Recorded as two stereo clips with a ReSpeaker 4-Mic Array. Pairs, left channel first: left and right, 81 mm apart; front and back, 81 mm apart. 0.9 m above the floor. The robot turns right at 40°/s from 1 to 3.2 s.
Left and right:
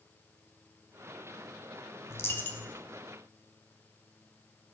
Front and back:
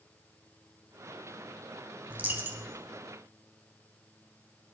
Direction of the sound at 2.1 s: 125° left.